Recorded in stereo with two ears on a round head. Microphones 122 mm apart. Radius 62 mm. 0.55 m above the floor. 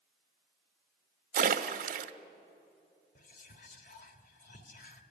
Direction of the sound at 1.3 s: 70° right (ahead or behind).